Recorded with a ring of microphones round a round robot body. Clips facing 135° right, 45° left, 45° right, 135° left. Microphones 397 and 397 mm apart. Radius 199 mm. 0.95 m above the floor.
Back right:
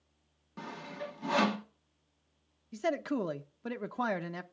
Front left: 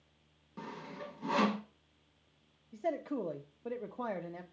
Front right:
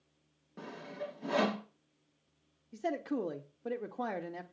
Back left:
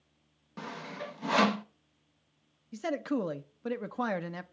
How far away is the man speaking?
About 0.7 m.